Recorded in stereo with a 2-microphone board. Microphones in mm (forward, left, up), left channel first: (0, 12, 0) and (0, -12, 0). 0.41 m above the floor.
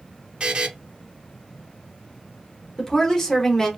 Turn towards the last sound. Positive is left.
turn(degrees=20)  # may be behind; listen again after turning